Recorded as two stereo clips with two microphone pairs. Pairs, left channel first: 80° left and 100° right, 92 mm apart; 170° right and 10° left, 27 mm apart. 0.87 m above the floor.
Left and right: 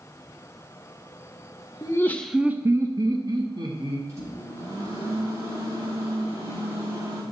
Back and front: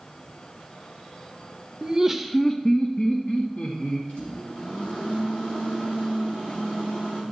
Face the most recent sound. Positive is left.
turn(degrees=-160)